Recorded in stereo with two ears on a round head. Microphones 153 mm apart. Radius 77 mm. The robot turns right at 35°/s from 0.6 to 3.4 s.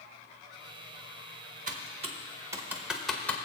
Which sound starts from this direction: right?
Typing on a keyboard, at 1.7 s.